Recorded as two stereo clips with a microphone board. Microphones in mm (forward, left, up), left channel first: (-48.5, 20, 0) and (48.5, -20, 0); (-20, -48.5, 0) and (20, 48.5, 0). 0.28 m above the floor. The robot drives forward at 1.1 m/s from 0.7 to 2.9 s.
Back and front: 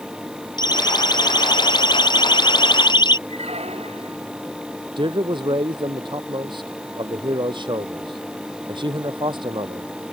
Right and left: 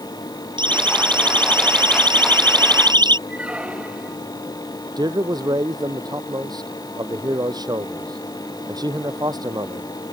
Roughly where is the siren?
Left.